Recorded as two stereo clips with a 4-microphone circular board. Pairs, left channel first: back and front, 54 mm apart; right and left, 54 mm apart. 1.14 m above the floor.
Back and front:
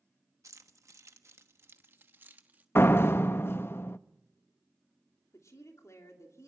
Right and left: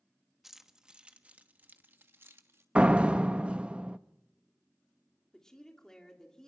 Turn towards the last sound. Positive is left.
turn(degrees=-165)